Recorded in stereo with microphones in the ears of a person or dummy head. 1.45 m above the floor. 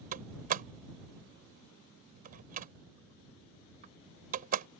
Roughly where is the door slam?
Right.